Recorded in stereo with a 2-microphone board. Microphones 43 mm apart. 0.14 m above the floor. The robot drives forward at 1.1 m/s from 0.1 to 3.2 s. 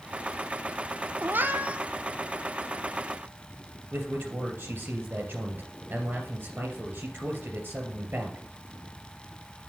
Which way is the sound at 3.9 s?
55° right (ahead or behind).